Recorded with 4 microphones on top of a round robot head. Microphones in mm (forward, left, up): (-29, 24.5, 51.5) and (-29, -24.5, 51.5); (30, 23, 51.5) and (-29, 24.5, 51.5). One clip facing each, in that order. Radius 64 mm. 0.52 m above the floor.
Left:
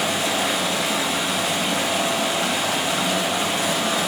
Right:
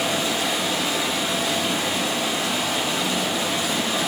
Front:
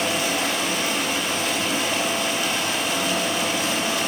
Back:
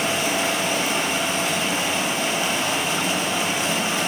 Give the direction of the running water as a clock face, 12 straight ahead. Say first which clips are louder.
Left 1 dB, back 1 dB; 8 o'clock.